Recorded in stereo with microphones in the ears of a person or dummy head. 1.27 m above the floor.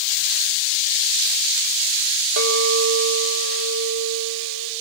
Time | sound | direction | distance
2.4 | a clink | 75° right (ahead or behind) | 3 m